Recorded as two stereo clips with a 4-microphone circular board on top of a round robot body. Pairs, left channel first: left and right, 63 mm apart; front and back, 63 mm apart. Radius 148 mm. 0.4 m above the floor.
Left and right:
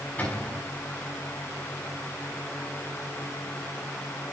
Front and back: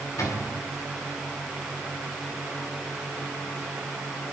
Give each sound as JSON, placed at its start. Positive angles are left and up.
{"t": 0.2, "sound": "a cupboard door", "azimuth_deg": 30, "distance_m": 5.5}